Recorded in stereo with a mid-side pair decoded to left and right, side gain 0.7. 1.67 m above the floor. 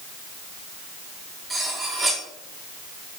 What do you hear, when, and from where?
1.5 s cutlery clinking: 5° right, 2.5 m